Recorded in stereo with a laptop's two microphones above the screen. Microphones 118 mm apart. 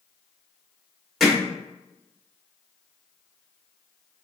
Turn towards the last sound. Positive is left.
turn(degrees=0)  # may be behind; listen again after turning